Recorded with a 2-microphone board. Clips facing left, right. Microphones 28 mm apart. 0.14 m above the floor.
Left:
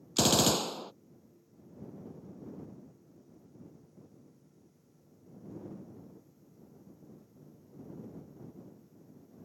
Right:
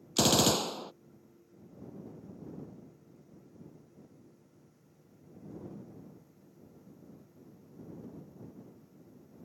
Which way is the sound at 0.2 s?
5° right (ahead or behind).